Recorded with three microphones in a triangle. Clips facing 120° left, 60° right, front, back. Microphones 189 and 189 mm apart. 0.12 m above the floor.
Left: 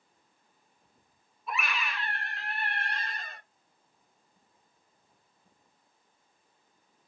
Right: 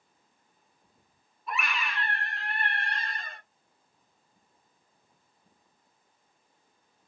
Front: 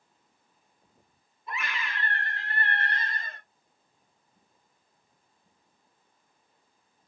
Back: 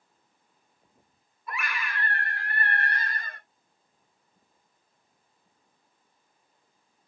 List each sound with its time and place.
1.5 s a scream: 35° left, 1.2 m